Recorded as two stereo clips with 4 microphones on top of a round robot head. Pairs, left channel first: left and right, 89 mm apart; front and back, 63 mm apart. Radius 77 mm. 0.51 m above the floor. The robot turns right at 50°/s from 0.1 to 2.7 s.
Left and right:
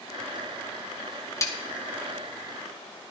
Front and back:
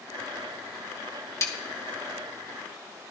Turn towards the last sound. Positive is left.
turn(degrees=100)